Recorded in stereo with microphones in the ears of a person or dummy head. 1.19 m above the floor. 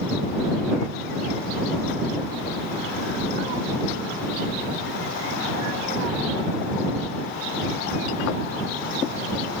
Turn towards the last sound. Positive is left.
No sound to turn to.